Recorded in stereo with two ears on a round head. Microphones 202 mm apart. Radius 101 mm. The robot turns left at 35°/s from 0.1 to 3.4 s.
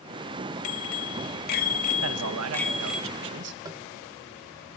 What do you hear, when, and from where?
0.6 s a bicycle bell: 75° left, 2 m; by 3.0 s 5° right, 2 m
2.0 s a man speaking: 75° right, 1.5 m; by 3.5 s 120° right, 1.5 m
3.6 s tapping: 20° right (ahead or behind), 1.6 m